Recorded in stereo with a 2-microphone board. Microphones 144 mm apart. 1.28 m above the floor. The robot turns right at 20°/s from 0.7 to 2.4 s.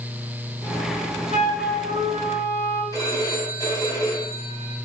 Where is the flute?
75° left (ahead or behind), 3.5 m; by 2.8 s 55° left (ahead or behind), 3.5 m.